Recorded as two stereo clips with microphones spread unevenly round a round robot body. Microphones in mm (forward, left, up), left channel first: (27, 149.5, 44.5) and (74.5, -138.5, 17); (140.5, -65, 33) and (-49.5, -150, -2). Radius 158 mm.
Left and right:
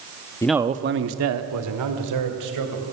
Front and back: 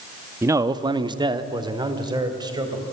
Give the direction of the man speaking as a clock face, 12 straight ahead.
6 o'clock.